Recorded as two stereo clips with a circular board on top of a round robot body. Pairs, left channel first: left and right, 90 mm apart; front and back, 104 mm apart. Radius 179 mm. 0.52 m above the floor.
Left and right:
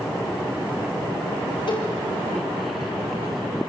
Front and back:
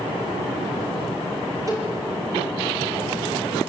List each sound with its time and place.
1.7 s a cowbell: 120° left, 6.5 m